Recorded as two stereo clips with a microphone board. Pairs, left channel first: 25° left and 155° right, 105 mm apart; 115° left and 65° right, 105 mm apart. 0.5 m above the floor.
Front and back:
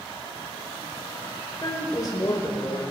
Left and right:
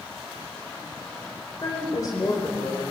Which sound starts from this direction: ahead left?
A woman speaking, at 1.6 s.